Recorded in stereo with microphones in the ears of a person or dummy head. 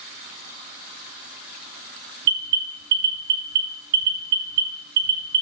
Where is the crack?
I don't hear a crack.